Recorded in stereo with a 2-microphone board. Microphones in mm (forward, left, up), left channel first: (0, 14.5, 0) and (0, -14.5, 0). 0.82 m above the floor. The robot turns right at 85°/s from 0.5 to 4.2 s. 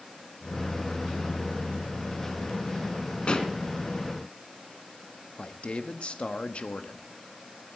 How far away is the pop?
About 2 m.